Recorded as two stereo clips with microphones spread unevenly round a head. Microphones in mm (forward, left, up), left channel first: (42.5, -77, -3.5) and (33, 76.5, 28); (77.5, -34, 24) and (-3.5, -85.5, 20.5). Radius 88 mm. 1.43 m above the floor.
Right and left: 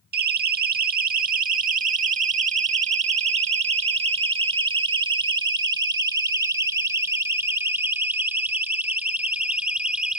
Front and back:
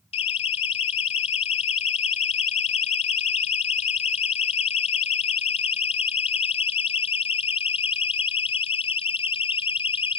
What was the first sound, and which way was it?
A siren, 70° left.